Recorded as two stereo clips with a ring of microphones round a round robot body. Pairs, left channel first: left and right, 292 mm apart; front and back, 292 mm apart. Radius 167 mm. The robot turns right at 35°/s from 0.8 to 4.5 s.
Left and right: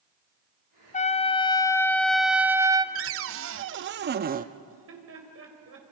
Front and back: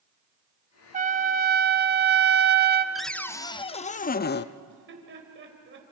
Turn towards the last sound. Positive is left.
turn(degrees=-130)